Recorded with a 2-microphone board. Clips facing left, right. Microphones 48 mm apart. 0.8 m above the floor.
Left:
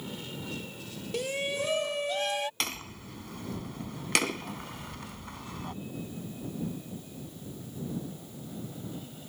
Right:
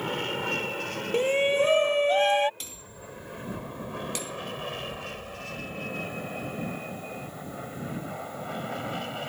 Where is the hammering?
70° left (ahead or behind).